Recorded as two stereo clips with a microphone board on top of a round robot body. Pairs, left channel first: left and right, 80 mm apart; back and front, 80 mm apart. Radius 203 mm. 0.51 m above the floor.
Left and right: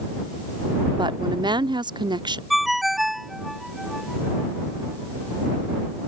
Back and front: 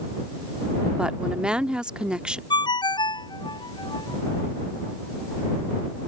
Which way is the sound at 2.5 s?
175° right.